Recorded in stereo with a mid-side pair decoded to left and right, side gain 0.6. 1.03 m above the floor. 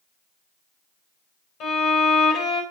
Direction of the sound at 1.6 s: 65° left.